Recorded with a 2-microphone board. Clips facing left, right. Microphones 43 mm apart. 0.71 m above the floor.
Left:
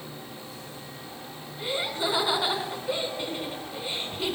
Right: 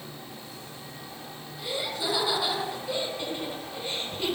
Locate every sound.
1.6 s laughter: 35° left (ahead or behind), 5 m; by 4.3 s 5° left (ahead or behind), 5 m